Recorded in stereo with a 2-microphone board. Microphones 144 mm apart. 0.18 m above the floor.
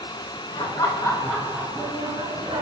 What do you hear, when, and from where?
0.6 s laughter: 35° left (ahead or behind), 1.7 m; by 2.6 s 45° right (ahead or behind), 1.9 m